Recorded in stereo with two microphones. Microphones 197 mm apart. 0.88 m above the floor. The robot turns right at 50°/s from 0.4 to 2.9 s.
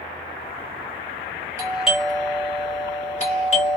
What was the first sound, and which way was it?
A doorbell, 15° right (ahead or behind).